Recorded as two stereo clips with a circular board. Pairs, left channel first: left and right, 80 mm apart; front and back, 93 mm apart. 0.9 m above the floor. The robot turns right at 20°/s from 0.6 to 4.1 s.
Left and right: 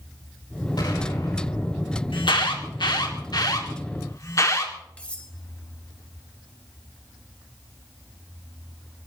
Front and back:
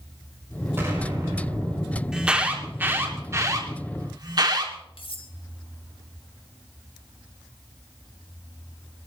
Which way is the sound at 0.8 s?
120° left.